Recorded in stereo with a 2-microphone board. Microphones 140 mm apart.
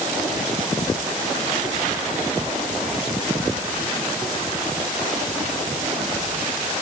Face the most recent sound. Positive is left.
No sound to turn to.